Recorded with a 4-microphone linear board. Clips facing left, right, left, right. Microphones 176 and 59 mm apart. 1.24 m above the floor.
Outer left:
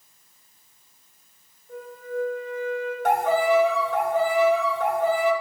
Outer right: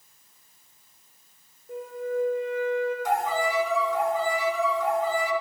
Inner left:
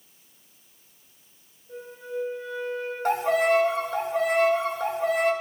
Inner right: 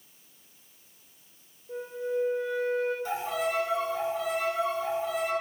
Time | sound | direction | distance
1.7 | a flute | 70° right (ahead or behind) | 3 m
3.0 | a violin | 65° left (ahead or behind) | 1.0 m